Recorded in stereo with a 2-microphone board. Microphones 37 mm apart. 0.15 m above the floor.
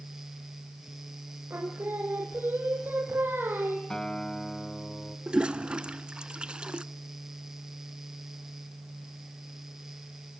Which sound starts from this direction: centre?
A guitar, at 3.9 s.